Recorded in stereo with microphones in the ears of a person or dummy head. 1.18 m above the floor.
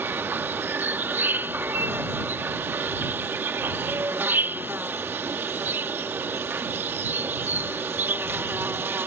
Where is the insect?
10° right (ahead or behind).